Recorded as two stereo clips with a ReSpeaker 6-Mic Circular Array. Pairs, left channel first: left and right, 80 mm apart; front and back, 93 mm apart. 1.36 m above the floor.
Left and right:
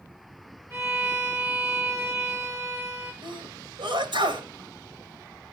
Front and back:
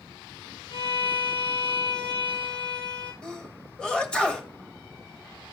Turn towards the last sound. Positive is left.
turn(degrees=-80)